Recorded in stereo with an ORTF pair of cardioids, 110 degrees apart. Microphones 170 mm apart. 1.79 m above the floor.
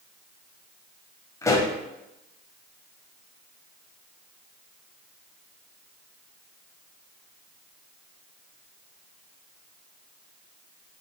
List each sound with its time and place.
1.4 s a pop: 20° left, 1.8 m